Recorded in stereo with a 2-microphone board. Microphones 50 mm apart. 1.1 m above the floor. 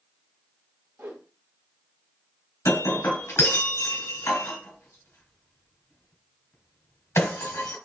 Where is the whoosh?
60° right (ahead or behind), 1.0 m.